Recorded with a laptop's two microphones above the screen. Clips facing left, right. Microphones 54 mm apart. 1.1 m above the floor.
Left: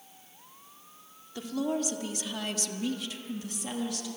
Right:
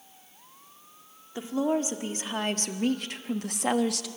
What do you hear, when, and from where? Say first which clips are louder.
1.4 s a woman speaking: right 4 dB; 25° right (ahead or behind), 2 m; by 4.1 s 85° right, 1.3 m